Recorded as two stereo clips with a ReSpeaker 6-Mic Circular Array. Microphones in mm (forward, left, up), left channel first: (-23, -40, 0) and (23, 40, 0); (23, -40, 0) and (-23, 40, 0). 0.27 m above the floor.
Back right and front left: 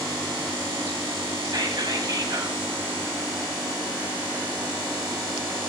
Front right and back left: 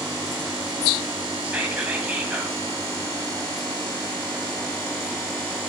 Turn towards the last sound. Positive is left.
turn(degrees=50)